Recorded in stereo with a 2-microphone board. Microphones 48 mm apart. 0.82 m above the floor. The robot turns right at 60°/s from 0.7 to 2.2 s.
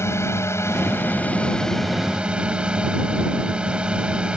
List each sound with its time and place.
0.0 s a drone: 110° left; by 4.4 s 160° right